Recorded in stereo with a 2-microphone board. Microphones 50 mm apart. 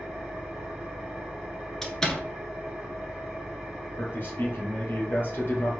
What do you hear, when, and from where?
0.0 s an engine running: 10° right (ahead or behind), 2.0 m
1.8 s a door slam: 10° left (ahead or behind), 1.0 m
4.0 s a man speaking: 45° left (ahead or behind), 2.5 m